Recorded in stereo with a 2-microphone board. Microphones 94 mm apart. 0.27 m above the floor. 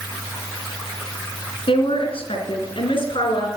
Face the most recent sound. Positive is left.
turn(degrees=55)  # may be behind; listen again after turning